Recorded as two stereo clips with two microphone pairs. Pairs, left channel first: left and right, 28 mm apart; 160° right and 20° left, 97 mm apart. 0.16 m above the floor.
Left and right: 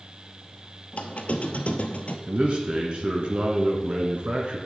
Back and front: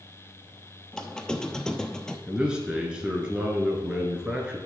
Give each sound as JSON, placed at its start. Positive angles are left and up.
{"t": 0.9, "sound": "a squeak", "azimuth_deg": 120, "distance_m": 0.8}
{"t": 2.3, "sound": "a man speaking", "azimuth_deg": -60, "distance_m": 2.0}